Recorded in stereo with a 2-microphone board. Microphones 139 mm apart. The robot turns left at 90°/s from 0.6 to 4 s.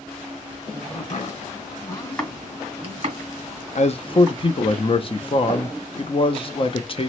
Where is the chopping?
45° left (ahead or behind), 1.8 m; by 4.4 s 25° right (ahead or behind), 1.8 m.